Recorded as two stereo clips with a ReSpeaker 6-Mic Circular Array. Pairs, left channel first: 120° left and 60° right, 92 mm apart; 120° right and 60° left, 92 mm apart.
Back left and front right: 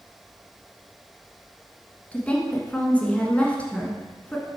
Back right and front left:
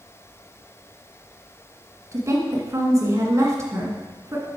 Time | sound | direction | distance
2.1 | a woman speaking | 55° left | 1.4 m